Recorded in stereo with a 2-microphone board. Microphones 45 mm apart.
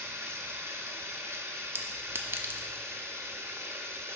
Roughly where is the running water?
Right.